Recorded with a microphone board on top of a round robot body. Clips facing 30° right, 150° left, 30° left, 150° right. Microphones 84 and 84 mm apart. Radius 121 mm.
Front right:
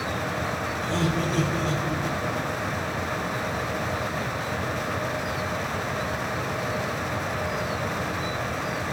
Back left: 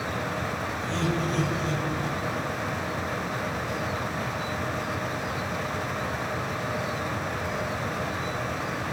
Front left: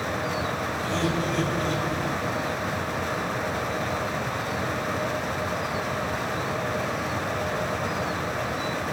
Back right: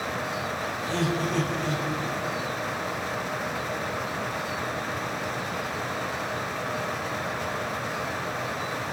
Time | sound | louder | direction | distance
0.8 | laughter | front right 2 dB, even | 115° right | 7.5 m